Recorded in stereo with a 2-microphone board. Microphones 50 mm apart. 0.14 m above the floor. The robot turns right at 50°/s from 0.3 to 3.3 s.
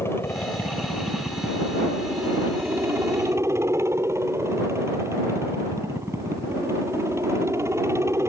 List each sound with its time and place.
0.0 s a helicopter: 115° left; by 8.3 s 95° right